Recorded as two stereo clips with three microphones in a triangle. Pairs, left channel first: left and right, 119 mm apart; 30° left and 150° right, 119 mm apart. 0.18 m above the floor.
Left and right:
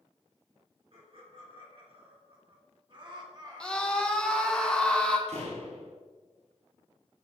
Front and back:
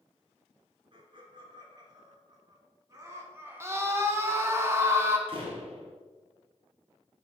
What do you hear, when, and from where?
0.9 s laughter: 115° right, 3 m; by 4.6 s 55° right, 1.8 m
3.6 s a scream: 165° left, 1.4 m
5.3 s a door slam: 110° right, 2.5 m